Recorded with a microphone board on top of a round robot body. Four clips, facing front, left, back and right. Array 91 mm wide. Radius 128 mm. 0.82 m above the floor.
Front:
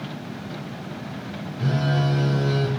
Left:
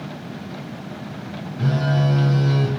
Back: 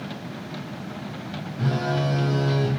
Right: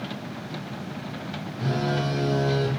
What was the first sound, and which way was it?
A phone buzzing, 120° left.